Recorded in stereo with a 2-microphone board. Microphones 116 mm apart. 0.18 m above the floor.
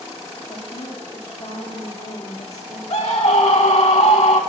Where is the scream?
70° left (ahead or behind), 4.5 m.